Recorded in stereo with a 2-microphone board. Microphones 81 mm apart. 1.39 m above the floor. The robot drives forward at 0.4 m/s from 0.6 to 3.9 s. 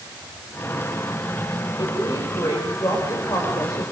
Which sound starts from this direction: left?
A woman speaking, at 1.8 s.